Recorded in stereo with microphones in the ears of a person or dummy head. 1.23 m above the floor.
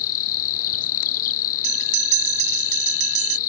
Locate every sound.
0.0 s an insect: 50° left (ahead or behind)
1.6 s a bell: 35° right (ahead or behind)